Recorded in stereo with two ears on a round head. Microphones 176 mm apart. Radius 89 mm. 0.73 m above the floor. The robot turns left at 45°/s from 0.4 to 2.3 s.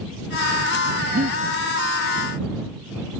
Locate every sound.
1.1 s breathing: 45° right (ahead or behind); by 1.4 s 35° right (ahead or behind)